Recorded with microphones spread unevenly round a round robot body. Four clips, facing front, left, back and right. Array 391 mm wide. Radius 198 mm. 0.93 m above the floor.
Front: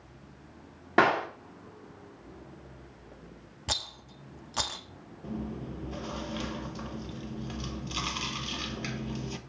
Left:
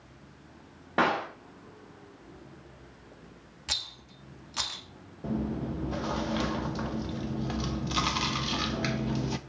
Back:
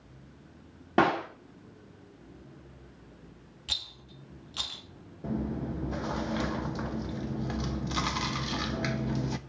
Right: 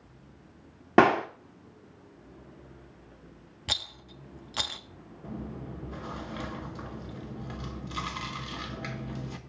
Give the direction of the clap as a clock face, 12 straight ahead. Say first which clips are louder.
Right 6 dB, front 1 dB; 3 o'clock.